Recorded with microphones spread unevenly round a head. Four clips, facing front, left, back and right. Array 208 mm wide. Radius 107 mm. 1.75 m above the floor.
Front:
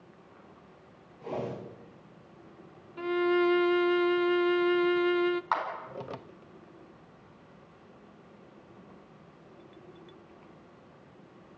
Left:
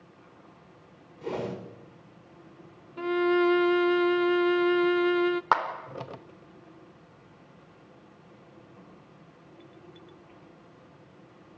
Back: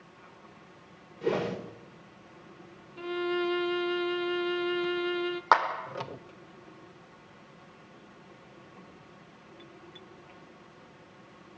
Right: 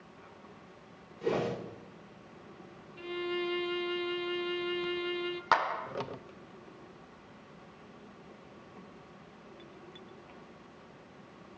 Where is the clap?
150° left, 4.5 m.